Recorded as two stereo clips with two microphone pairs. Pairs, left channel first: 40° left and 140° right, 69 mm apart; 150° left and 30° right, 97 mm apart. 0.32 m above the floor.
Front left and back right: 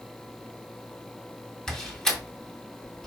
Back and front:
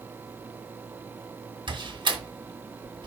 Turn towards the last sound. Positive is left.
turn(degrees=-40)